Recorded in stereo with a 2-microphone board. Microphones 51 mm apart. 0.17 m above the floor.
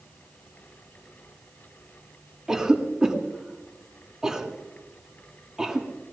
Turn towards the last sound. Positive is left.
turn(degrees=-10)  # may be behind; listen again after turning